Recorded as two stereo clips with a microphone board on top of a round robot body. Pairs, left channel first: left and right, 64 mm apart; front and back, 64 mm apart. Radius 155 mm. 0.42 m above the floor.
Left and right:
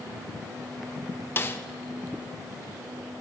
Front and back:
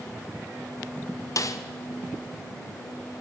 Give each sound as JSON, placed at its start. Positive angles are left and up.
{"t": 1.4, "sound": "a snare drum", "azimuth_deg": 35, "distance_m": 1.0}